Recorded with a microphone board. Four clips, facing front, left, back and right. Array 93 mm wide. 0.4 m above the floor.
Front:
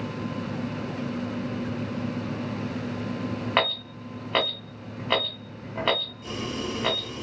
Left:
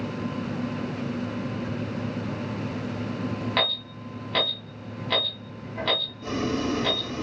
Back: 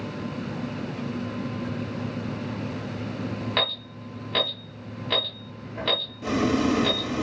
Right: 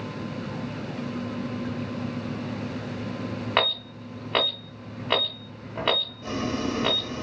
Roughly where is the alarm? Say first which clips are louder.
Right 2 dB, front 3 dB; ahead right.